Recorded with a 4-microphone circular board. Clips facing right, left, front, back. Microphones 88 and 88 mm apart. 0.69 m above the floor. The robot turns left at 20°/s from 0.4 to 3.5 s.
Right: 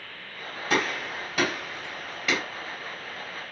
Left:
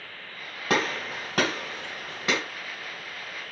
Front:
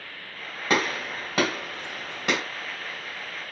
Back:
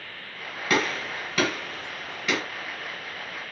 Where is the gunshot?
65° left, 2.5 m; by 2.4 s 30° left, 2.5 m.